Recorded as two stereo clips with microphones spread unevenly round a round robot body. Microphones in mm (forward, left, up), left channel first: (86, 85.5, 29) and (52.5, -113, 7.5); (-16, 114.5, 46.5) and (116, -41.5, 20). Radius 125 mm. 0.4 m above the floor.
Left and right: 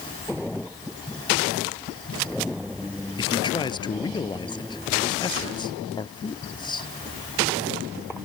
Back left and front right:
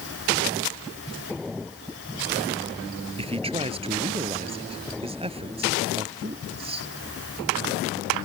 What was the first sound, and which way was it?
A man speaking, 15° left.